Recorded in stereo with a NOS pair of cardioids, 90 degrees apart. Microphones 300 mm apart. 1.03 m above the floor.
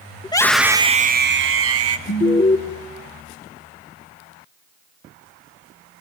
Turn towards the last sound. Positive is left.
turn(degrees=35)